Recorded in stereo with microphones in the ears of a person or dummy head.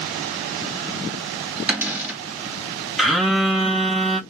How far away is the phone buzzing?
About 0.6 m.